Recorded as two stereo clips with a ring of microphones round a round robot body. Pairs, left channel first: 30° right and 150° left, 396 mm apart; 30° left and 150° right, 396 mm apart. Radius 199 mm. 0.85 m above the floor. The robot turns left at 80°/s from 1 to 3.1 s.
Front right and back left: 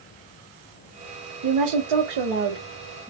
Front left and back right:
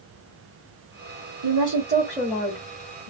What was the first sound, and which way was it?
A woman speaking, straight behind.